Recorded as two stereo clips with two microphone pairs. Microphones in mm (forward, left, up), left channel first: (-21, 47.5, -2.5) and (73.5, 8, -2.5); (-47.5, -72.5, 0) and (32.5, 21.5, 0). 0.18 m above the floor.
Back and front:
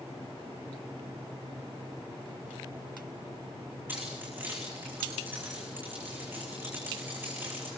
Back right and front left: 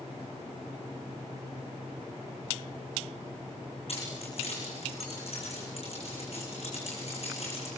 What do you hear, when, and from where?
3.9 s keys jangling: 95° right, 7.5 m